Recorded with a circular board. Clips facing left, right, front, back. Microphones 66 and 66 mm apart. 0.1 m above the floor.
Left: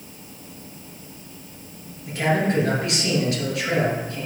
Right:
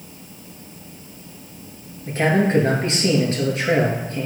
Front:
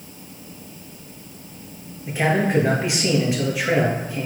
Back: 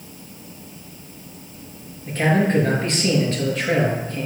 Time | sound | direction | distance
2.1 | a man speaking | 75° right | 2.0 m